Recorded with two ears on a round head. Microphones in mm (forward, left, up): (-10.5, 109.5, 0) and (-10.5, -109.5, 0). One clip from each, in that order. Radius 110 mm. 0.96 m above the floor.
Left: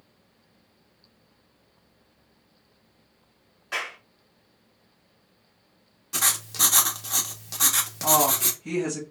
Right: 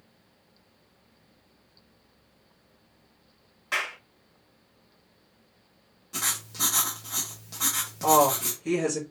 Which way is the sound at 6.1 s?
35° left (ahead or behind).